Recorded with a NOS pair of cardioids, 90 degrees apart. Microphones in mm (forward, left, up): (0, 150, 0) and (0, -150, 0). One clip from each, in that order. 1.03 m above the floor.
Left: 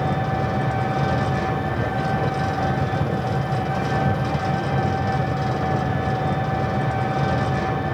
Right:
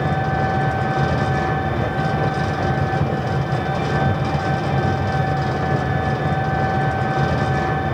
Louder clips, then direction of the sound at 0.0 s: Right 3 dB; 15° right.